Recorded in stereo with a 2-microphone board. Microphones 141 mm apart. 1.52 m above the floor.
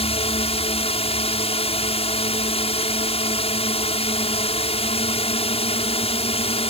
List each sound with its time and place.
0.0 s a drone: 45° left (ahead or behind)